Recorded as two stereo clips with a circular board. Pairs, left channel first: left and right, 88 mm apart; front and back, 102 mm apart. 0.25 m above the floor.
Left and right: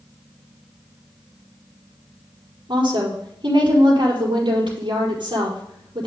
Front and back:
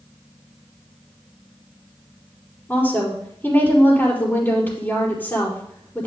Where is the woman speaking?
70° right, 5 m.